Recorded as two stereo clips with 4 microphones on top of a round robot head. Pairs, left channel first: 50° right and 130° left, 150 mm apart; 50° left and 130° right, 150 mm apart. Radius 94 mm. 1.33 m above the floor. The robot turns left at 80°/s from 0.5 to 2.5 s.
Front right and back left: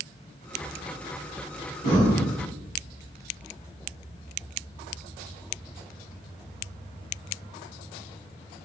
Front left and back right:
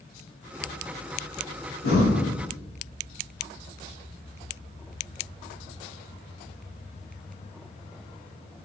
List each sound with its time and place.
1.8 s breathing: 80° left, 2 m; by 2.2 s 45° left, 2 m